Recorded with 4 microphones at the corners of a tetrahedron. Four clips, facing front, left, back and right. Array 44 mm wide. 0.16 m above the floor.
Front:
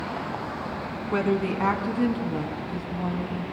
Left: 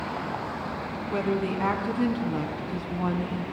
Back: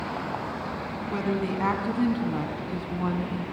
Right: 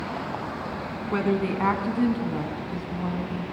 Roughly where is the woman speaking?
Ahead right.